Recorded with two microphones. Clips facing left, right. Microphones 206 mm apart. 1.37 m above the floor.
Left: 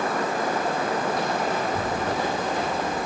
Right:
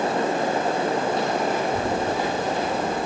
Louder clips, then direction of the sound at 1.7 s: Right 3 dB; 10° right (ahead or behind).